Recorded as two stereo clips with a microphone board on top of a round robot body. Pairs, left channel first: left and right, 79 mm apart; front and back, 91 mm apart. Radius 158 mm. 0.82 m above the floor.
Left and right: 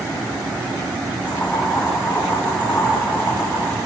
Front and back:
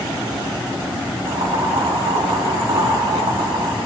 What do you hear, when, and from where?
1.3 s boiling: 165° left, 8.5 m